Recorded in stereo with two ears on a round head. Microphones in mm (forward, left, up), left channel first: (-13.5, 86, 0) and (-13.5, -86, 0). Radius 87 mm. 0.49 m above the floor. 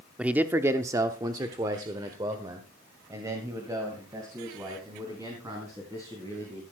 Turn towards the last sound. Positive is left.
turn(degrees=-15)  # may be behind; listen again after turning